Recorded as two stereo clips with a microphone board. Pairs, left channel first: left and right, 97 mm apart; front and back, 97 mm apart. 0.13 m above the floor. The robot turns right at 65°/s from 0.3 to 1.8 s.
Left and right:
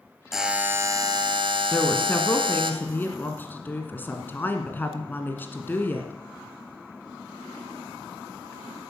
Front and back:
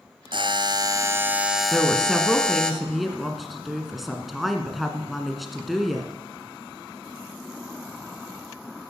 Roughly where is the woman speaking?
Left.